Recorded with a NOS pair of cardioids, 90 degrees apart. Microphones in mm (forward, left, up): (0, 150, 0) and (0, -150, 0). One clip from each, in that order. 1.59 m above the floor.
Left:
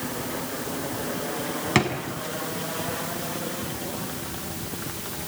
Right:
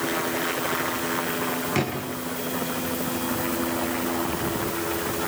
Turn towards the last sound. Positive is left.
turn(degrees=55)